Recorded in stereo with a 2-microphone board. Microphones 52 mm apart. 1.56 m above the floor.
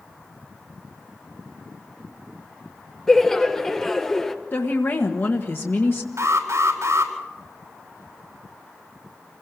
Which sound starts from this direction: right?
An alarm, at 6.2 s.